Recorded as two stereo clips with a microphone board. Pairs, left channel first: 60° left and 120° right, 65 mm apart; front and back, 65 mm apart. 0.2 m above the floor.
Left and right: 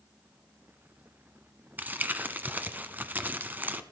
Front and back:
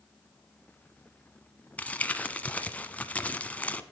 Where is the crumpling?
65° right, 1.1 m.